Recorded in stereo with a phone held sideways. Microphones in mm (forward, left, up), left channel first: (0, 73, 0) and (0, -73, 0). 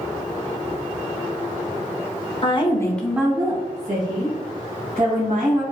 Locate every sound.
2.4 s a woman speaking: 40° left (ahead or behind), 0.7 m; by 5.6 s 80° right, 1.9 m